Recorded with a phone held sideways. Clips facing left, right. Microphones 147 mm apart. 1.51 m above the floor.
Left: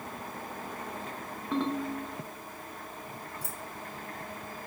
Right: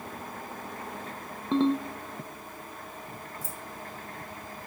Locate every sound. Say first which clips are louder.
1.5 s a ringtone: right 6 dB; 20° right (ahead or behind), 0.9 m
3.4 s keys jangling: right 1 dB; 70° left (ahead or behind), 1.7 m